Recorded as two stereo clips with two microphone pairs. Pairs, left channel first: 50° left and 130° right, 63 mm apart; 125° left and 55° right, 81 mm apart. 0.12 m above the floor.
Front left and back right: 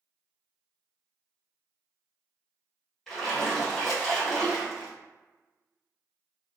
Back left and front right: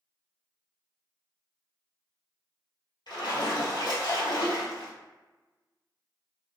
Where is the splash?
135° left, 1.7 m.